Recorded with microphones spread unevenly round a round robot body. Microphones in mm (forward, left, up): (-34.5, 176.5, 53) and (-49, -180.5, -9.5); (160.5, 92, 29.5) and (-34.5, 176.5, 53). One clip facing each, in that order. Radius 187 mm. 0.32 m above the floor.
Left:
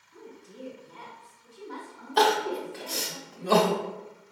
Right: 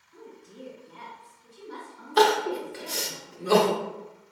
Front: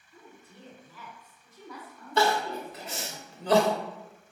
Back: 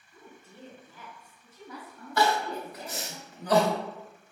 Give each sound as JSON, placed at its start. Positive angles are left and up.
{"t": 0.1, "sound": "a woman speaking", "azimuth_deg": 170, "distance_m": 1.5}
{"t": 2.2, "sound": "crying", "azimuth_deg": -45, "distance_m": 0.8}